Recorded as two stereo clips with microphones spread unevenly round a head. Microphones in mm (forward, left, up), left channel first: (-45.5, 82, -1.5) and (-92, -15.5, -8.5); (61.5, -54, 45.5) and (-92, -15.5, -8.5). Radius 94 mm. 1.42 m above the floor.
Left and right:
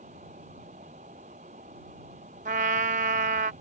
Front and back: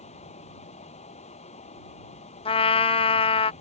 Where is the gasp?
No gasp in this recording.